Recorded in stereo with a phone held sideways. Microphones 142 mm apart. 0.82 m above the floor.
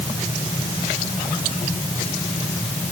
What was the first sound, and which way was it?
Only background noise.